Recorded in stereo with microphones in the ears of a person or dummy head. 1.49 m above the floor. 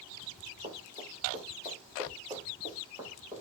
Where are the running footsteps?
30° right (ahead or behind), 6 m; by 3.4 s 20° right (ahead or behind), 6.5 m.